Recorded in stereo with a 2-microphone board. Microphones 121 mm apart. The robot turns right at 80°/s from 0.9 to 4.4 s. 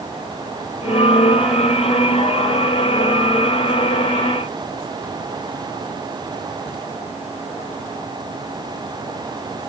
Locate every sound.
Only background noise.